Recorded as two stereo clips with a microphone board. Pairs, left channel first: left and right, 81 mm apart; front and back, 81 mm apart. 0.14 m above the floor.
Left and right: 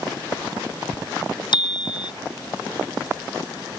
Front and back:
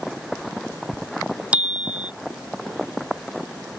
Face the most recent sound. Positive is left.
turn(degrees=105)